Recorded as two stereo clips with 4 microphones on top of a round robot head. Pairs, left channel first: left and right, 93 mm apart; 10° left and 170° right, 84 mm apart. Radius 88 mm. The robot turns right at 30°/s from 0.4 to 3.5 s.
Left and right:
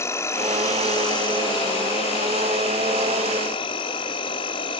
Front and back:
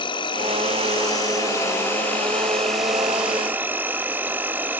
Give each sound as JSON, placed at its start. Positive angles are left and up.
{"t": 0.0, "sound": "an insect", "azimuth_deg": 30, "distance_m": 1.3}